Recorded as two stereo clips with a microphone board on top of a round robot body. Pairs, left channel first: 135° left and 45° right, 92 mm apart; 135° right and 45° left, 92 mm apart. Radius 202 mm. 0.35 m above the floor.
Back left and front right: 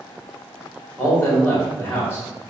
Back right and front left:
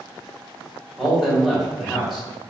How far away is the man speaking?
About 1.5 m.